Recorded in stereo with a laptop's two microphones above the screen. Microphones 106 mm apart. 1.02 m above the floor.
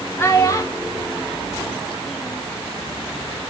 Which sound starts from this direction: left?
A child speaking, at 0.2 s.